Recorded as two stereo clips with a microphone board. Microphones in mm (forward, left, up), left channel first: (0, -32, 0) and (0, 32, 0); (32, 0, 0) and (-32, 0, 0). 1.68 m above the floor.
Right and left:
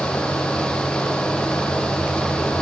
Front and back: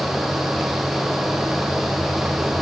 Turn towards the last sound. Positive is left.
No sound to turn to.